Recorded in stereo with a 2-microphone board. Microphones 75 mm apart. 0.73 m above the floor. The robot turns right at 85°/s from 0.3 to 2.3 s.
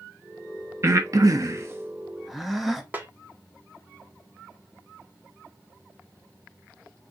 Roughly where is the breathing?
Right.